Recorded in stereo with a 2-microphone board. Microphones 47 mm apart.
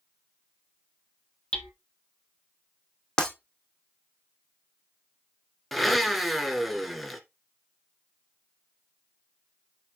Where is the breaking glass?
15° left (ahead or behind), 2 m.